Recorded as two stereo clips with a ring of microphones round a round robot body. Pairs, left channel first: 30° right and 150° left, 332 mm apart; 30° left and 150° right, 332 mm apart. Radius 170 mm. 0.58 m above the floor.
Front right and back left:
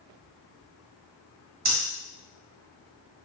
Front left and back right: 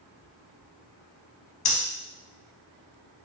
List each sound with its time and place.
1.6 s breathing: 85° left, 0.6 m